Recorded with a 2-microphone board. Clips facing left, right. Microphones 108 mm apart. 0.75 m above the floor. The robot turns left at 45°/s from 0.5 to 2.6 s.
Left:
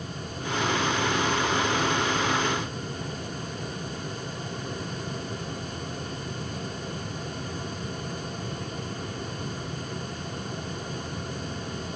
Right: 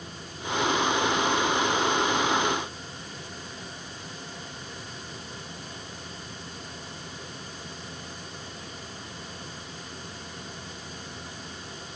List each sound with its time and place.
Only background noise.